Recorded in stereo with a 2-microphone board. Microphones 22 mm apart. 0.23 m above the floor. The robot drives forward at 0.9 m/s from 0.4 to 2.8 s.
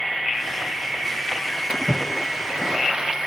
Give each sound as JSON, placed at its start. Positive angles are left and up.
{"t": 1.7, "sound": "a splash", "side_deg": -40}